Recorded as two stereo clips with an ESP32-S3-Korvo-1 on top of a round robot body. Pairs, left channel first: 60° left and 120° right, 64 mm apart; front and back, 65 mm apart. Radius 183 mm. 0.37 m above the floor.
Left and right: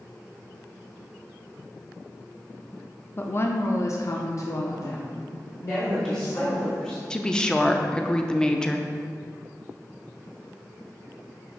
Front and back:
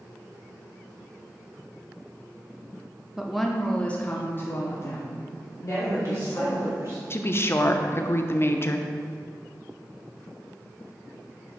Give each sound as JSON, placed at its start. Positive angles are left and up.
{"t": 3.2, "sound": "a woman speaking", "azimuth_deg": 100, "distance_m": 0.9}
{"t": 5.7, "sound": "a woman speaking", "azimuth_deg": 140, "distance_m": 2.0}
{"t": 7.1, "sound": "a woman speaking", "azimuth_deg": -10, "distance_m": 0.9}